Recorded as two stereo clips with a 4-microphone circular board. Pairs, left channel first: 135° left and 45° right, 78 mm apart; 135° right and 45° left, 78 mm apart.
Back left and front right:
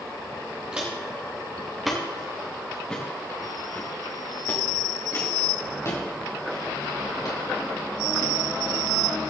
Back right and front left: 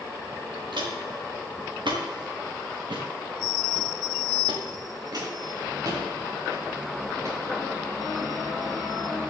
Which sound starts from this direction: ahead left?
Footsteps, at 0.7 s.